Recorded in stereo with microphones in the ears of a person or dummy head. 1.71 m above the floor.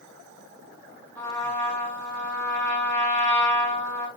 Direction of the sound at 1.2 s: 10° left (ahead or behind).